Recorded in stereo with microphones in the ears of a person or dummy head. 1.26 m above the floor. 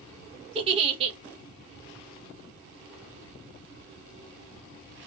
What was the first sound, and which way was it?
A giggle, 30° right (ahead or behind).